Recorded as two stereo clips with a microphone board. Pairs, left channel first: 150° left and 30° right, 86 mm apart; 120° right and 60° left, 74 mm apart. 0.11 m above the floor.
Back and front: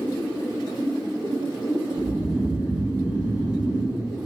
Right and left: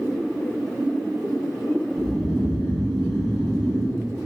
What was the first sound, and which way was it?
Snoring, 65° right.